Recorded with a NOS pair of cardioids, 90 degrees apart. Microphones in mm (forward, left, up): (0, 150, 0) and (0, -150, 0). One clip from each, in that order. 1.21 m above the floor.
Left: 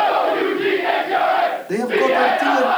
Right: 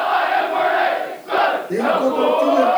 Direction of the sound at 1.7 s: 50° left.